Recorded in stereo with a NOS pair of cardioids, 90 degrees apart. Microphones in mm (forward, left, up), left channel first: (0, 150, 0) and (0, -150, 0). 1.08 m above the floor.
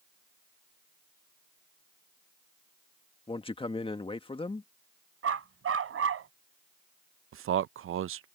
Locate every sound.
3.3 s a man speaking: 15° left
5.2 s a dog barking: 45° right
7.3 s a man speaking: 45° right